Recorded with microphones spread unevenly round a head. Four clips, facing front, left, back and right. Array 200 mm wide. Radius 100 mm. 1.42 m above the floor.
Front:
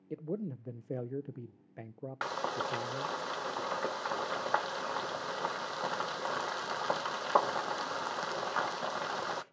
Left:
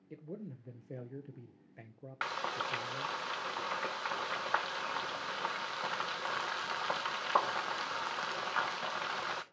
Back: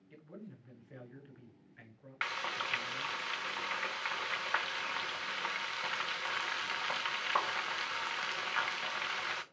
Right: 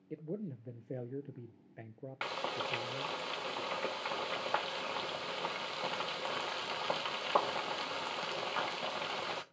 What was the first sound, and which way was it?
A man speaking, 15° right.